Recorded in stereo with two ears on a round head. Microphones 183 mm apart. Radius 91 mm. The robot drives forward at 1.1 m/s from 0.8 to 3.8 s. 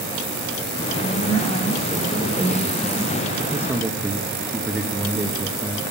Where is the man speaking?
10° right (ahead or behind), 1.0 m.